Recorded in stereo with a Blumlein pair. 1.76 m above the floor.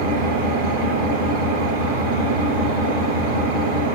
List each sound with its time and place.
0.0 s an engine running: 70° right, 7.5 m